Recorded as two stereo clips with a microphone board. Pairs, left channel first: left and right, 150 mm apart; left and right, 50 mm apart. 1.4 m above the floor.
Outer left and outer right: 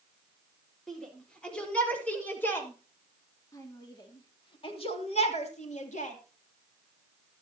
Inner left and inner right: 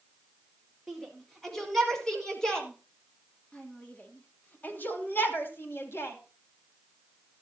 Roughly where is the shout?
Centre.